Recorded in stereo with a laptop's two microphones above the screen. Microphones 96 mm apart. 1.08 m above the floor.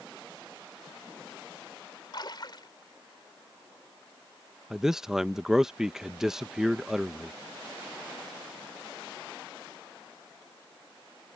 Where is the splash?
50° left (ahead or behind).